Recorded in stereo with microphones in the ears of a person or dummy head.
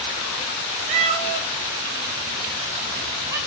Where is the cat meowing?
35° right (ahead or behind), 0.7 m; by 3.4 s 20° right (ahead or behind), 1.7 m.